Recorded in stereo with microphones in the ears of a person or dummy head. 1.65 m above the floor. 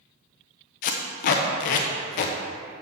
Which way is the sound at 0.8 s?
40° left (ahead or behind).